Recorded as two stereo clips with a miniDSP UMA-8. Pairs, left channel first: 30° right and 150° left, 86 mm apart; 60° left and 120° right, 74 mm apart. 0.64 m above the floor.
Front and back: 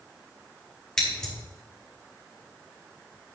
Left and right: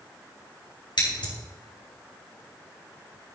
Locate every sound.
1.0 s scissors: 50° left, 4.5 m